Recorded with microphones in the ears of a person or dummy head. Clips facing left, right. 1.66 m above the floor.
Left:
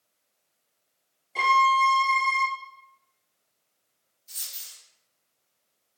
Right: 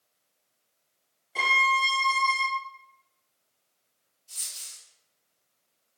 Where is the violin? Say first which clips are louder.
Left 6 dB; 5° right (ahead or behind), 0.6 m.